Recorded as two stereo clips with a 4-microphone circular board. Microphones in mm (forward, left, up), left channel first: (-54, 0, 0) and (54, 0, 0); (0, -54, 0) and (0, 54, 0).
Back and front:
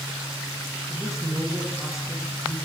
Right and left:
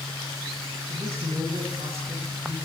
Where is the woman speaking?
85° left, 6 m.